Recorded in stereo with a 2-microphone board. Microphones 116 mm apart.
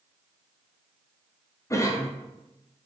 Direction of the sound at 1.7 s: 25° left (ahead or behind).